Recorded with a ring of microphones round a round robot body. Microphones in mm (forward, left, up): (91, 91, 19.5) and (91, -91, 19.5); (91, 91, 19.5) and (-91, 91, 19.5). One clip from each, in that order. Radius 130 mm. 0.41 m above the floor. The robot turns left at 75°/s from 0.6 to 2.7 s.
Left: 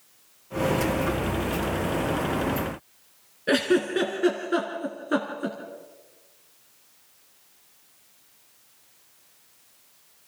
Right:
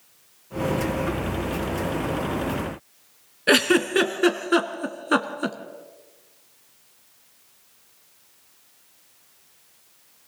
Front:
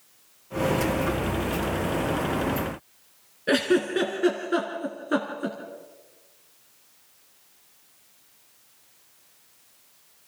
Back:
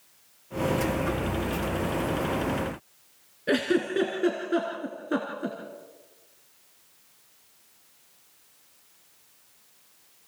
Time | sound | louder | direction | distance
3.5 | a giggle | right 4 dB, front 3 dB | 80° right | 1.7 m